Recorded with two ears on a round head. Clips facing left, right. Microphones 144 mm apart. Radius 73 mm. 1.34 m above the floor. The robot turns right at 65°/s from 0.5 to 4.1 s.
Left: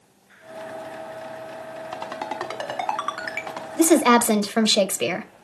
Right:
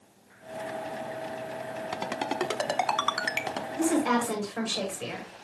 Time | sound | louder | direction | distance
1.9 | a ringtone | even | 15° right (ahead or behind) | 1.1 m
3.8 | a woman speaking | left 9 dB | 70° left (ahead or behind) | 1.2 m